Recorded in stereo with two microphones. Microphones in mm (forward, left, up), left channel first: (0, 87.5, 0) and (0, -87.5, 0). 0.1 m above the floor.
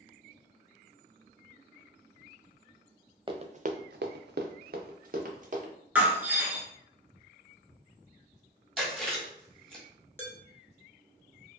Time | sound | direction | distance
3.3 | running footsteps | 30° right (ahead or behind) | 0.6 m
6.0 | breaking glass | 10° right (ahead or behind) | 0.9 m
8.8 | chewing | centre (ahead or behind) | 1.5 m
10.2 | dishes clattering | 15° left (ahead or behind) | 1.2 m